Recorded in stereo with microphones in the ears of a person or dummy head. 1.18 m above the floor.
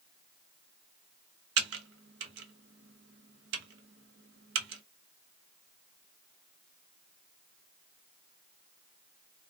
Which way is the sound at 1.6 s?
55° right (ahead or behind).